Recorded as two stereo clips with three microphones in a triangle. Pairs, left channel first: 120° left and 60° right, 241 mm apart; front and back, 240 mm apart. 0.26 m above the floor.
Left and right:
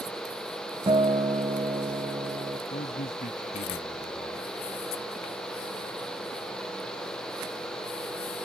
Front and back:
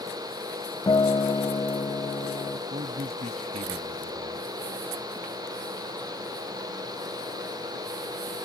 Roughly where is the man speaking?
Behind left.